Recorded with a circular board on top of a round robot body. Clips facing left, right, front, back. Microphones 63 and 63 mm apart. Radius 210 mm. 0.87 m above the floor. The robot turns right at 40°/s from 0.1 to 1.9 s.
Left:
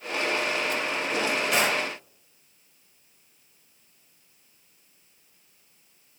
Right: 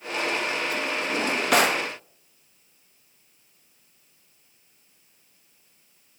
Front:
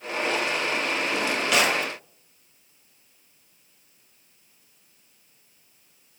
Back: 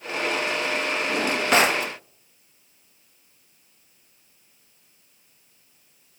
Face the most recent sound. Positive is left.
turn(degrees=-110)